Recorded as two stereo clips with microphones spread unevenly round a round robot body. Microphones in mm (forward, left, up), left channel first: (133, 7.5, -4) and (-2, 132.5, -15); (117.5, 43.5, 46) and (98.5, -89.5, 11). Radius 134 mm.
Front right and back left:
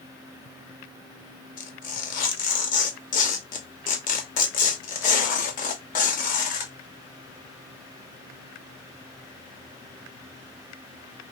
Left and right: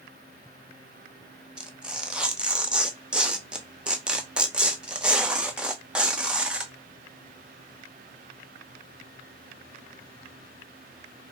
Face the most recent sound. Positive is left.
turn(degrees=-40)